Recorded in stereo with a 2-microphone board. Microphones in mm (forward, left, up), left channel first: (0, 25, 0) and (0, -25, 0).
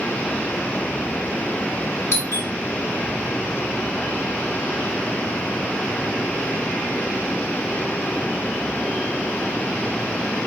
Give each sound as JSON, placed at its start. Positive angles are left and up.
{"t": 2.1, "sound": "a doorbell", "side_deg": 50, "distance_m": 1.5}